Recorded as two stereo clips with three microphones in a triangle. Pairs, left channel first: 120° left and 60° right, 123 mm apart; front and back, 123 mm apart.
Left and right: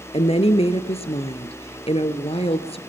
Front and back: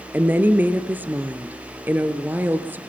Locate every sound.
0.1 s a woman speaking: 110° left, 2.0 m